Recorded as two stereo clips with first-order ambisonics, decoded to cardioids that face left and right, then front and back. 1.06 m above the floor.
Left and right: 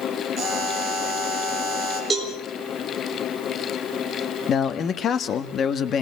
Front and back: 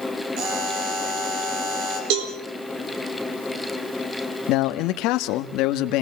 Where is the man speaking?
30° left, 1.4 m.